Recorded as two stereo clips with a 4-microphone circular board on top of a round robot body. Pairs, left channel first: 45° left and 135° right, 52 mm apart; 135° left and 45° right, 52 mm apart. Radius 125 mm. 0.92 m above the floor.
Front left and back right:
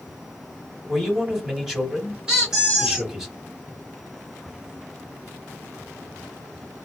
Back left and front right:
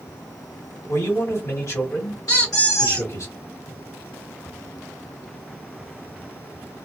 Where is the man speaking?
145° left, 1.6 m.